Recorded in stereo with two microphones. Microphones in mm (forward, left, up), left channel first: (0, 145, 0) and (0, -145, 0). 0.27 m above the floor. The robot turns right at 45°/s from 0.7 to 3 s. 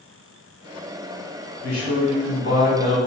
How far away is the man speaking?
About 1.8 m.